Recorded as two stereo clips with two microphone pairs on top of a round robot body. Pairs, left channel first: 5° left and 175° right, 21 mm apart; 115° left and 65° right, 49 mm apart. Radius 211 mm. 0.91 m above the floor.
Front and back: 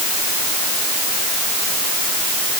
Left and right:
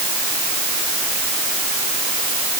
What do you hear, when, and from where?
Only background noise.